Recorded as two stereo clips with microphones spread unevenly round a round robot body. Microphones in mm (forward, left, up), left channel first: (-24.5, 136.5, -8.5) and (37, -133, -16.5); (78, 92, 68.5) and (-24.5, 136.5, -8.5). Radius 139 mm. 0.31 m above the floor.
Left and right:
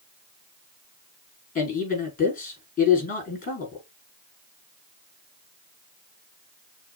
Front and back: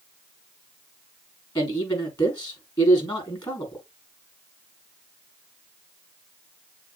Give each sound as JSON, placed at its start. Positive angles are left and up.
{"t": 1.6, "sound": "a man speaking", "azimuth_deg": 40, "distance_m": 4.5}